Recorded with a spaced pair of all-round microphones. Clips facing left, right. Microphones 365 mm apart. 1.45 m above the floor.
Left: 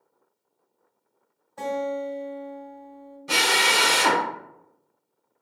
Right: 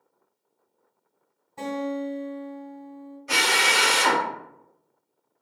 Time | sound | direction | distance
1.6 | a guitar | 35° right (ahead or behind) | 1.3 m
3.3 | a drill | 50° left (ahead or behind) | 0.7 m